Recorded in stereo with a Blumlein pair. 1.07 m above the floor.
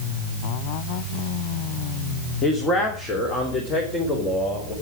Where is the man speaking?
25° left, 2.5 m; by 4.7 s 20° left, 5 m.